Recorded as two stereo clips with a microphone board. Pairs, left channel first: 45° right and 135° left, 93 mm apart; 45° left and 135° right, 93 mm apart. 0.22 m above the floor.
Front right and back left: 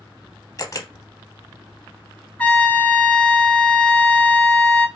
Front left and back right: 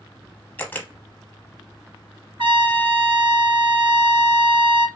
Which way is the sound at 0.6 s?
15° right.